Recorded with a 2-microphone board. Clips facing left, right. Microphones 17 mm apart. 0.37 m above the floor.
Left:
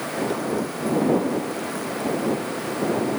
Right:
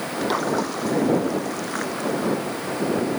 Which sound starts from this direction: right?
A splash, at 0.2 s.